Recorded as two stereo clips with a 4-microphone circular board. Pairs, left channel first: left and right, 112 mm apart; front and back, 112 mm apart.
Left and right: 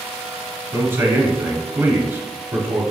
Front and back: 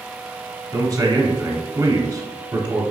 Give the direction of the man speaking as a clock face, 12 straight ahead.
5 o'clock.